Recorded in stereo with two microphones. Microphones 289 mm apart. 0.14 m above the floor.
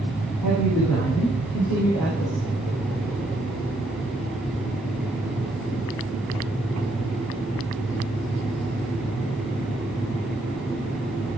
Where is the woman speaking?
80° left, 7.5 m; by 2.4 s 65° left (ahead or behind), 7.5 m.